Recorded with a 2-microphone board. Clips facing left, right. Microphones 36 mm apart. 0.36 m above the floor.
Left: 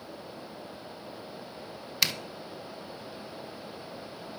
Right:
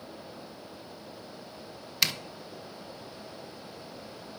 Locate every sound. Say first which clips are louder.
2.0 s a zipper: even; centre (ahead or behind), 0.5 m